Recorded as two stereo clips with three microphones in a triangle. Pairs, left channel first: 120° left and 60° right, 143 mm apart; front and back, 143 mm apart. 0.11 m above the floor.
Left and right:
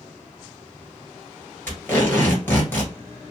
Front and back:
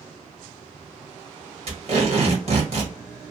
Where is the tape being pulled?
170° right, 2.0 m.